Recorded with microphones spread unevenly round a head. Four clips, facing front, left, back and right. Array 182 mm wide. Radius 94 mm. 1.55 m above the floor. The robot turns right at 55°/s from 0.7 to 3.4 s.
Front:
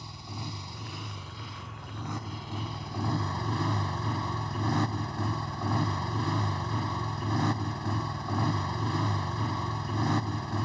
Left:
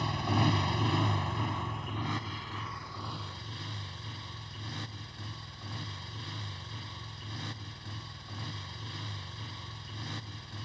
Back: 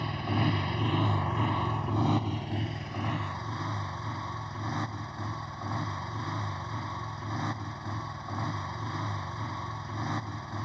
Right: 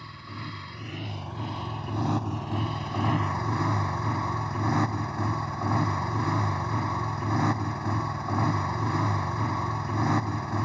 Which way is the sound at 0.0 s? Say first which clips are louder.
Left 10 dB, back 11 dB; 145° left.